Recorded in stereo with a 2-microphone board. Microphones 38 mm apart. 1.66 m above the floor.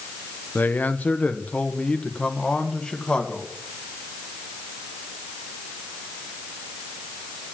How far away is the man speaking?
About 0.9 m.